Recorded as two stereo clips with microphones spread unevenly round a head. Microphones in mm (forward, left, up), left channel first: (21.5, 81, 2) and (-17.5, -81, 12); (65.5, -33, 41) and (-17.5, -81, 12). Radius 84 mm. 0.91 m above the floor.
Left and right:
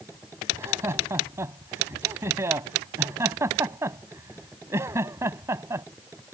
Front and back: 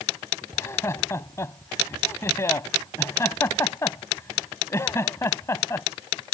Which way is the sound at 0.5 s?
30° right.